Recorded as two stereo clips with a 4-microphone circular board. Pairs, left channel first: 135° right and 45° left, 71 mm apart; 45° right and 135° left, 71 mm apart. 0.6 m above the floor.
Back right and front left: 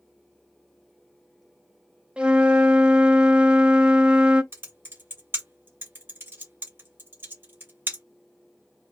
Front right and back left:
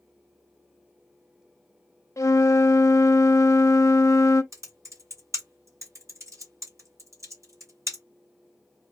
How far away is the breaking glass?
I don't hear breaking glass.